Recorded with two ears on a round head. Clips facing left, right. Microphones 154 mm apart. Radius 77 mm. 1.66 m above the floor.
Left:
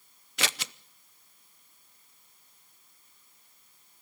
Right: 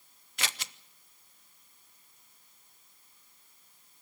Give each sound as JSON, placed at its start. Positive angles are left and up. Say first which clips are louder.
{"t": 0.4, "sound": "scissors", "louder": "left 5 dB", "side_deg": 60, "distance_m": 0.7}